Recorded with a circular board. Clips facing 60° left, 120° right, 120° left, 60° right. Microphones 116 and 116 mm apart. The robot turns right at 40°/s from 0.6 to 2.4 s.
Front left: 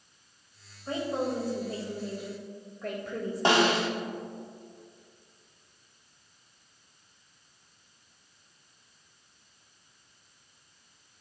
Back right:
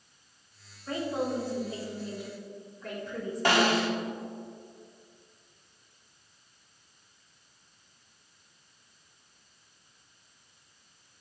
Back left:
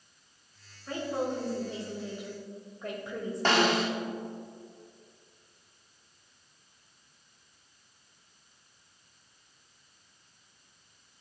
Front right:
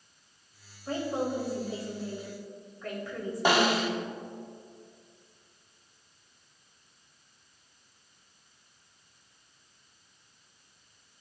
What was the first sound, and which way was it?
A woman speaking, 5° right.